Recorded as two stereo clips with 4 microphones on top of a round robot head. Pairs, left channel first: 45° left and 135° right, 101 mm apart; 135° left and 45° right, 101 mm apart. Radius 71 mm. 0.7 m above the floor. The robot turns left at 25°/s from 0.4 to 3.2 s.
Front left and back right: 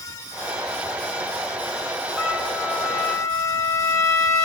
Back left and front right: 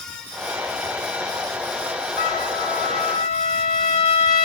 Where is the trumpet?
140° left, 10 m; by 4.5 s 110° left, 10 m.